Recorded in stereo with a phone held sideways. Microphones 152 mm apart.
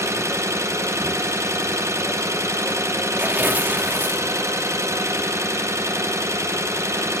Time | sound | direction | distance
0.0 | an engine running | 15° right (ahead or behind) | 0.8 m
3.2 | tearing paper | 10° right (ahead or behind) | 0.9 m